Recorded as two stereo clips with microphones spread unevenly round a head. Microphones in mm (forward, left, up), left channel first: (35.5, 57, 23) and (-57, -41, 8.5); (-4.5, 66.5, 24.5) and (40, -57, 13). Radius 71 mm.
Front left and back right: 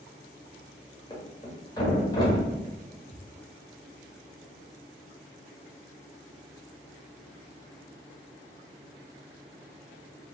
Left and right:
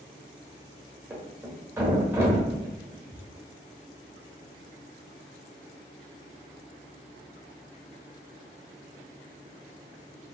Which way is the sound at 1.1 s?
5° left.